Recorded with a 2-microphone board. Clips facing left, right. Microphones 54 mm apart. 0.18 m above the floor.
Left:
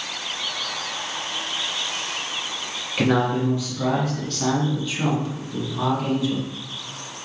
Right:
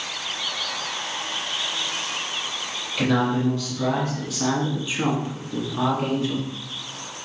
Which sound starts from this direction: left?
A man speaking, at 3.0 s.